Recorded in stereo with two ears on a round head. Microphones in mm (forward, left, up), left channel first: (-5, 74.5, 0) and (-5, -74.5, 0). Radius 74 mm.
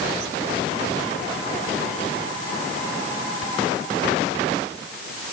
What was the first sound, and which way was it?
Only background noise.